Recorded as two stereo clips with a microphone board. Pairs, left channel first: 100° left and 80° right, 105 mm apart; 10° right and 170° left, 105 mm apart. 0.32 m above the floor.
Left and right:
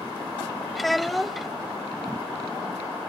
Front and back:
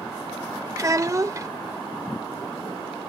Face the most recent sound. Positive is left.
turn(degrees=-170)